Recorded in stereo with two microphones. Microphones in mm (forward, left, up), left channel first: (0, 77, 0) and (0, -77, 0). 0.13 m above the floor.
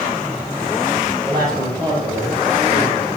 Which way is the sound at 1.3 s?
35° right (ahead or behind).